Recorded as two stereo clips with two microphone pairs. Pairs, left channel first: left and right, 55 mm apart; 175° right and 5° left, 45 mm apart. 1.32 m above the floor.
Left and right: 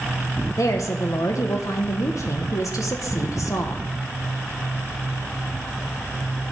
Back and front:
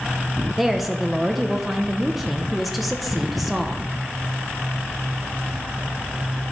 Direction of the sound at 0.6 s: 90° left.